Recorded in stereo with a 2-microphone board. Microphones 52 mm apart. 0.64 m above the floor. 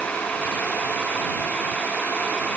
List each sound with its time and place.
Only background noise.